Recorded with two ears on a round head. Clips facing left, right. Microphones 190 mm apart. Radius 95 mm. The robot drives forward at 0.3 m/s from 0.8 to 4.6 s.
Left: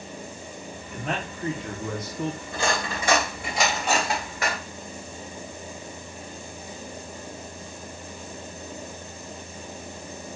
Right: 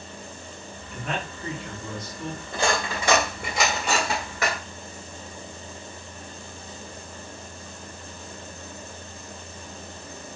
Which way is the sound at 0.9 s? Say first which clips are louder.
Left 1 dB; 30° left (ahead or behind).